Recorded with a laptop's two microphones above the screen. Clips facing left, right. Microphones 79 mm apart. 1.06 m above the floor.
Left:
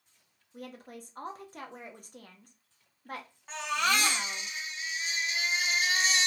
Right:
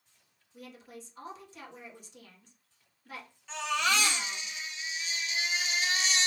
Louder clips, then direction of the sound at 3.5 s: Even; 45° left (ahead or behind).